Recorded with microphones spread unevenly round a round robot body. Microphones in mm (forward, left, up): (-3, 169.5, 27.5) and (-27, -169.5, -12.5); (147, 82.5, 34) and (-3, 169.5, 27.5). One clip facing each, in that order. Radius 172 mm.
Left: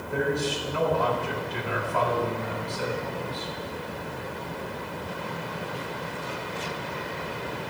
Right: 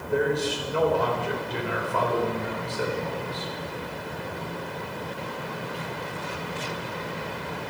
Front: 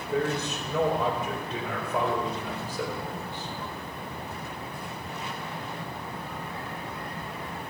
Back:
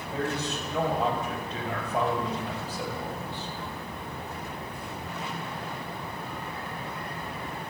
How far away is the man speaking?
About 3 m.